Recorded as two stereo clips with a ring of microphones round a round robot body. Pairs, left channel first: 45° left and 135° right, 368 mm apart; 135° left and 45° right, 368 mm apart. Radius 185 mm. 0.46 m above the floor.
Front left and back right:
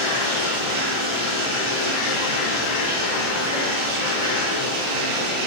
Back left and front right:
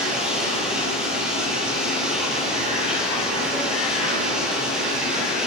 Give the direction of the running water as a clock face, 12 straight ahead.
4 o'clock.